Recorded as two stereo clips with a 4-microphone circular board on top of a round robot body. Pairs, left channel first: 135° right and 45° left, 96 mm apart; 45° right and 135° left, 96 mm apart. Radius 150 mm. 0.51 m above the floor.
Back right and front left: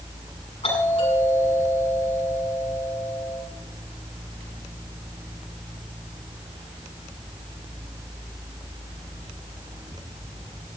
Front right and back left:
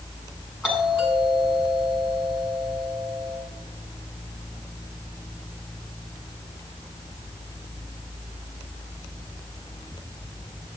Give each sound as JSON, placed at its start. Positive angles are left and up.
{"t": 0.6, "sound": "a doorbell", "azimuth_deg": -140, "distance_m": 8.0}